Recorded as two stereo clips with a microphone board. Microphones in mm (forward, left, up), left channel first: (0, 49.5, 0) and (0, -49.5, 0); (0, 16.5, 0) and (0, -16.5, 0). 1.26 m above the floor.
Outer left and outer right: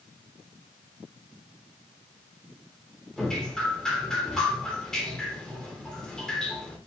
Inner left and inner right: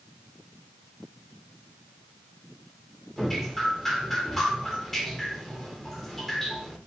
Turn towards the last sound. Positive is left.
turn(degrees=5)  # may be behind; listen again after turning